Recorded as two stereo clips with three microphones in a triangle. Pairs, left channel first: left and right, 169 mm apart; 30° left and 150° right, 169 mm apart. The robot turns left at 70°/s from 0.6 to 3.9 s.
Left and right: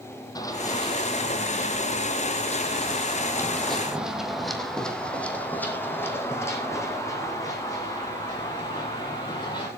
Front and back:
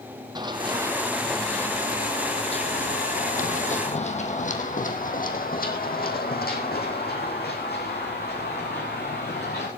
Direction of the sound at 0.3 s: 155° left.